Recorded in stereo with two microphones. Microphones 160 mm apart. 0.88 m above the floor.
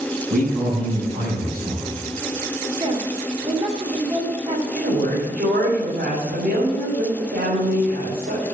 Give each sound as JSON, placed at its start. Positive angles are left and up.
{"t": 0.3, "sound": "a man speaking", "side_deg": -70, "distance_m": 6.0}
{"t": 2.8, "sound": "a woman speaking", "side_deg": -35, "distance_m": 2.5}
{"t": 4.7, "sound": "a woman speaking", "side_deg": -80, "distance_m": 4.0}